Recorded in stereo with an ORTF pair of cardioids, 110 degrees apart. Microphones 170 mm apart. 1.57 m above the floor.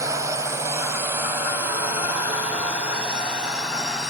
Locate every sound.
0.0 s a drone: 20° right; by 4.1 s 5° right